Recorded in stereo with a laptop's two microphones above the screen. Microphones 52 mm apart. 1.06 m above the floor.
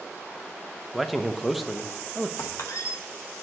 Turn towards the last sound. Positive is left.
turn(degrees=70)  # may be behind; listen again after turning